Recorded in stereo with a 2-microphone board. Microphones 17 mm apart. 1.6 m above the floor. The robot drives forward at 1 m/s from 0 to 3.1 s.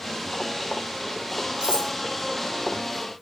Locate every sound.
1.6 s cutlery clinking: 70° right (ahead or behind), 3 m